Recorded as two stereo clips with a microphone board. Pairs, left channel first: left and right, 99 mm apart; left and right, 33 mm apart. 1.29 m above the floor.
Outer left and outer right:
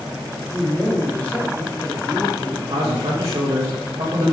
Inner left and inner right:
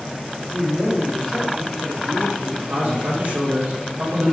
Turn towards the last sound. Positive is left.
turn(degrees=-75)  # may be behind; listen again after turning